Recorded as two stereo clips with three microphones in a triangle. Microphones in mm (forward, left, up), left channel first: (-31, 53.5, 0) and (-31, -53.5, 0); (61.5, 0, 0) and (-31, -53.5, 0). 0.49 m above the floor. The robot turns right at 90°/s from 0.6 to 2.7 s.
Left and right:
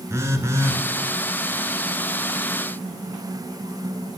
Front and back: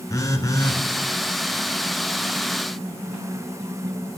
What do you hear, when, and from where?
0.1 s a phone buzzing: 30° right, 1.0 m; by 0.8 s 10° right, 1.0 m